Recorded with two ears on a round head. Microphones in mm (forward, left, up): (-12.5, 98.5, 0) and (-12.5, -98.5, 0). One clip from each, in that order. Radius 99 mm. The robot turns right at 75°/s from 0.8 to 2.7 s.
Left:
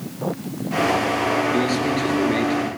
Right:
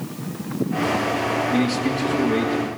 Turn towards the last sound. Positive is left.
turn(degrees=95)